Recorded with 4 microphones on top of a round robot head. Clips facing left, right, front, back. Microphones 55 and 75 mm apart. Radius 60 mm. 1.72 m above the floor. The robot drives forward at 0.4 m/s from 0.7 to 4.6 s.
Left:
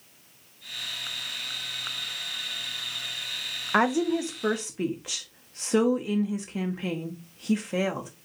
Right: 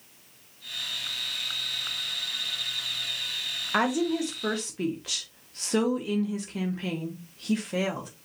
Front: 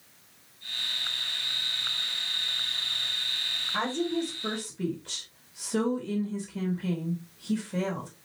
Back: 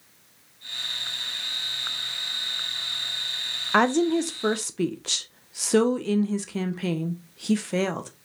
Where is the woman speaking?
160° left, 0.5 m; by 8.1 s 170° left, 0.8 m.